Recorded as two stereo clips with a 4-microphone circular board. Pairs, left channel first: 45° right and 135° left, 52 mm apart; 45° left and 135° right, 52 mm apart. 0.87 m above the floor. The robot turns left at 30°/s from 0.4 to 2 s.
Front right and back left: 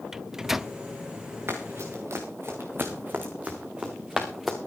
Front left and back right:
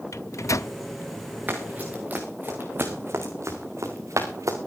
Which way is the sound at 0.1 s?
55° left.